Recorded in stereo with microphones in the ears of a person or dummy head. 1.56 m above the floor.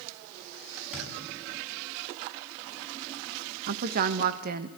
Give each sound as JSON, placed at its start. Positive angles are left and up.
{"t": 0.9, "sound": "a thud", "side_deg": -5, "distance_m": 7.5}
{"t": 3.7, "sound": "a woman speaking", "side_deg": -55, "distance_m": 1.4}